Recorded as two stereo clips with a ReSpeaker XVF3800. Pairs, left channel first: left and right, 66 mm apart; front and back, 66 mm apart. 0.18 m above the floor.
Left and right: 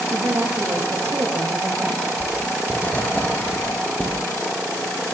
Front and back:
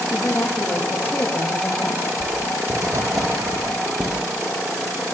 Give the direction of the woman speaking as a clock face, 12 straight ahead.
2 o'clock.